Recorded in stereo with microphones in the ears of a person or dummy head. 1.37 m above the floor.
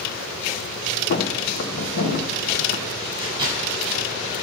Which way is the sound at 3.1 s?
25° right (ahead or behind).